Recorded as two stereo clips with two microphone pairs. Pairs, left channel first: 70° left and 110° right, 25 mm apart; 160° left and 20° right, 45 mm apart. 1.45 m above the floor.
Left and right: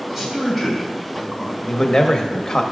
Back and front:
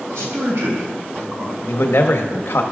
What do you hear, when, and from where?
0.1 s a man speaking: 15° right, 3.5 m
1.6 s a man speaking: 130° left, 1.1 m